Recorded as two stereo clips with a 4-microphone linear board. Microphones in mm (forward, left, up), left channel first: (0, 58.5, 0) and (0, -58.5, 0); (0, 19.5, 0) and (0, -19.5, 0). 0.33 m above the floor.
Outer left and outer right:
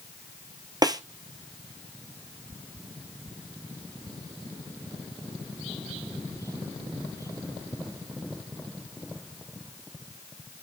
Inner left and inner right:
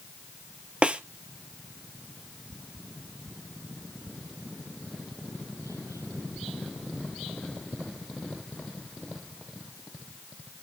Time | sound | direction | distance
0.8 | a snare drum | 35° right (ahead or behind) | 1.2 m